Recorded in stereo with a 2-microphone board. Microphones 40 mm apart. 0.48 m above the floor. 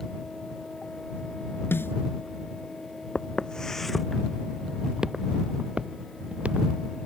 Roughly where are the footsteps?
Left.